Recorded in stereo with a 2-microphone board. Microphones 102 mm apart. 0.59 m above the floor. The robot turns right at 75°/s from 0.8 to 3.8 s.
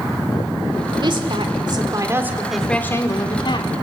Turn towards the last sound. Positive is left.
turn(degrees=95)